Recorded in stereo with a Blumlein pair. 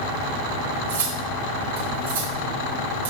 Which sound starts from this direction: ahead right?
Cutlery clinking, at 0.9 s.